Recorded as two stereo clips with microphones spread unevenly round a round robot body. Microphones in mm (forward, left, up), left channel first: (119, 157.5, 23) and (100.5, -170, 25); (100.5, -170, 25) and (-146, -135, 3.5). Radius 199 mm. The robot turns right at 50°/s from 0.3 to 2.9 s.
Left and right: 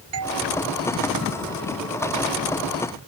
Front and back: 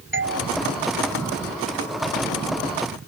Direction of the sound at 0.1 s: 150° right.